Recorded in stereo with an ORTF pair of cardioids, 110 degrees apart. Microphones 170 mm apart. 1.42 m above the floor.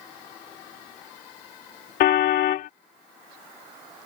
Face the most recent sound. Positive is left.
turn(degrees=70)